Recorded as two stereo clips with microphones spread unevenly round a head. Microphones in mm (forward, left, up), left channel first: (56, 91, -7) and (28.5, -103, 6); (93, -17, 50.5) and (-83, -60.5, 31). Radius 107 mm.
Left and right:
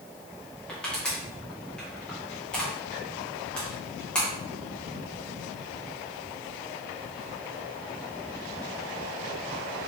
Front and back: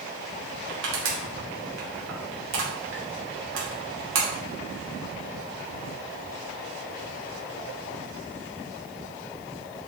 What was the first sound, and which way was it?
Crushing, 170° left.